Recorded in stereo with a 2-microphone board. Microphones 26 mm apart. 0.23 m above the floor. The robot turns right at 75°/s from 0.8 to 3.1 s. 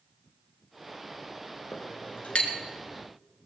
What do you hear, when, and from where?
1.7 s a clink: 70° left (ahead or behind), 2 m; by 2.5 s 35° left (ahead or behind), 2 m